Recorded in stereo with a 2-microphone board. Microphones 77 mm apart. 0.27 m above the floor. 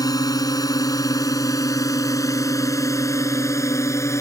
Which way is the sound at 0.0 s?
55° left (ahead or behind).